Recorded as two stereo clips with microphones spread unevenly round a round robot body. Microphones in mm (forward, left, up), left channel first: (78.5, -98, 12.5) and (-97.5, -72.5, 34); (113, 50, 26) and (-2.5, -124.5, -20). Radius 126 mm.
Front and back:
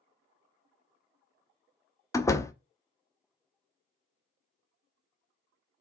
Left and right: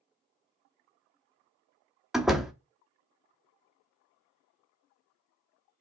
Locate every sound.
2.1 s a door slam: 55° right, 0.6 m